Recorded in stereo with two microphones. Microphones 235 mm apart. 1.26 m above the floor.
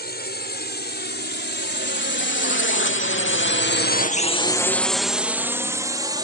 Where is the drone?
45° left (ahead or behind); by 6.2 s 15° right (ahead or behind).